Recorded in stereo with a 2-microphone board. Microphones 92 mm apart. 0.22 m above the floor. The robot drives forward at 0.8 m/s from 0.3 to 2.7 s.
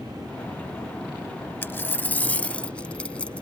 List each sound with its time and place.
1.6 s a dropped coin: 25° left (ahead or behind); by 3.4 s 15° left (ahead or behind)